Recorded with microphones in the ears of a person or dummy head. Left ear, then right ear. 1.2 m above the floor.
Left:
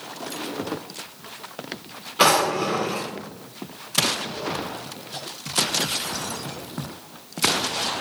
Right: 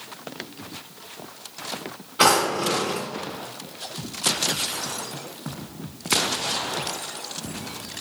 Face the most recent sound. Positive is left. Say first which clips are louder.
# left 1 dB
turn(degrees=10)  # may be behind; listen again after turning